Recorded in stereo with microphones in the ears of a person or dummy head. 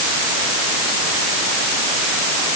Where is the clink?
No clink in this recording.